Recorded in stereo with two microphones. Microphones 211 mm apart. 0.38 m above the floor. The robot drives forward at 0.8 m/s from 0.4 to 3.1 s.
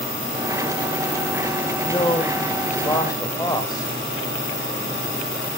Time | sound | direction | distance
1.9 | a man speaking | 25° left (ahead or behind) | 1.3 m